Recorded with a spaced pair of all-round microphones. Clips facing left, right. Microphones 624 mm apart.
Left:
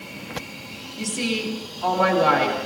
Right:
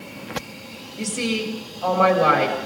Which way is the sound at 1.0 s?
35° right (ahead or behind).